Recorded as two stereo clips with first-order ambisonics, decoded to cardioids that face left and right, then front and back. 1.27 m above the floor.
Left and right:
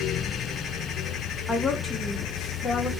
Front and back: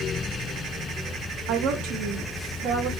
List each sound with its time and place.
1.5 s a woman speaking: 175° left, 0.8 m